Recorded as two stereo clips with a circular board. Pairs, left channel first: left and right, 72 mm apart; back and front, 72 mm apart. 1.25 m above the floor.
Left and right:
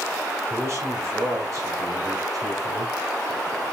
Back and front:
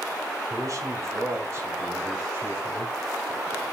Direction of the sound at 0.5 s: 40° right.